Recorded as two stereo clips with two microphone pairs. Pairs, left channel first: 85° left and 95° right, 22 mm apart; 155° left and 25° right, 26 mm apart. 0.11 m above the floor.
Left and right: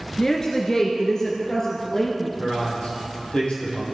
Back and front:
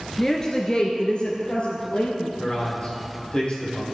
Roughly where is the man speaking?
Behind left.